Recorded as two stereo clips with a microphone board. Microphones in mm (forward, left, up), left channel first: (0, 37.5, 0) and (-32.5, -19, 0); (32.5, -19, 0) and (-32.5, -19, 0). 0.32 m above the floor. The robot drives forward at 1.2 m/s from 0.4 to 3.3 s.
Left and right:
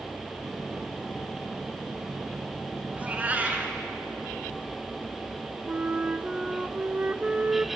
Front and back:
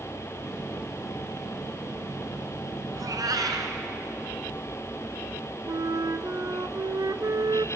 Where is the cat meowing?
175° left, 1.5 m.